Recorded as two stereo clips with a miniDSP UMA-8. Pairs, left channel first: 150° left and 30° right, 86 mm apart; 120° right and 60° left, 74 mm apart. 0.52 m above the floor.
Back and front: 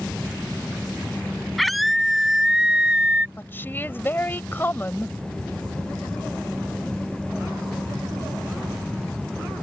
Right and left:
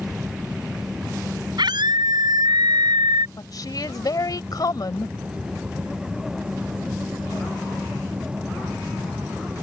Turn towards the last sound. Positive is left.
turn(degrees=-145)